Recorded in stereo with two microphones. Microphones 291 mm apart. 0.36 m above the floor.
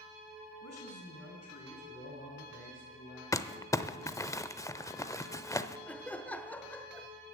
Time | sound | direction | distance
0.6 | a man speaking | 60° left (ahead or behind) | 3.5 m
3.3 | crumpling | 10° left (ahead or behind) | 0.6 m
5.9 | laughter | 5° left (ahead or behind) | 0.9 m